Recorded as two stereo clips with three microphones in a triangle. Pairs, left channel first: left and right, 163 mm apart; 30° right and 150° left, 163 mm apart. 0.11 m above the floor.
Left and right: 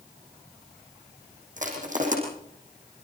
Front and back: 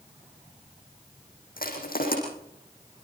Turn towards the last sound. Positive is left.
turn(degrees=-55)